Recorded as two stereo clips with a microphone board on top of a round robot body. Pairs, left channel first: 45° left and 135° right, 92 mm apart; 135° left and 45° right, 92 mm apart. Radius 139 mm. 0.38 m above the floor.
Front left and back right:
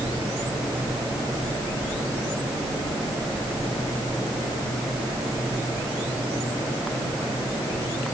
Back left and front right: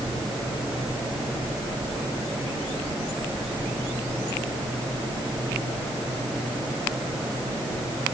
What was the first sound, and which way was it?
Only background noise.